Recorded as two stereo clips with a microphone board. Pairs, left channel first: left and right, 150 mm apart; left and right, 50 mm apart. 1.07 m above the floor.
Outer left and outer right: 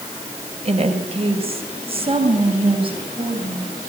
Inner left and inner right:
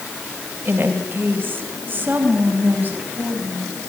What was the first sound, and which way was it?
A woman speaking, 45° right (ahead or behind).